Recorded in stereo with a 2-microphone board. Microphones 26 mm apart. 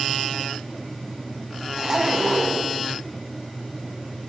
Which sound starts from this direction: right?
A zipper, at 1.8 s.